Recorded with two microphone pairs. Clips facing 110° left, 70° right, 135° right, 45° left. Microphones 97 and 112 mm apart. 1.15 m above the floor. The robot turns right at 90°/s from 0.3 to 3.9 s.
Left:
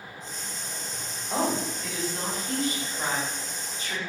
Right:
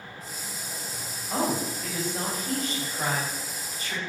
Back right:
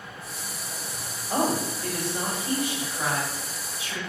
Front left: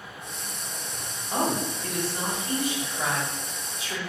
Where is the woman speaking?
Straight behind, 1.9 m; by 4.0 s 55° left, 1.9 m.